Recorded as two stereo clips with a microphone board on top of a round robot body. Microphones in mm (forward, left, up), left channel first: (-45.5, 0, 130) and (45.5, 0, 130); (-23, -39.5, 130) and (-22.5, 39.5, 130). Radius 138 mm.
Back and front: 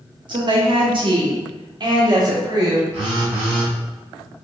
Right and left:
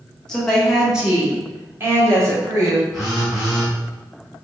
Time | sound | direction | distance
0.3 | a woman speaking | 10° right | 0.9 m
2.9 | a phone buzzing | 5° left | 1.3 m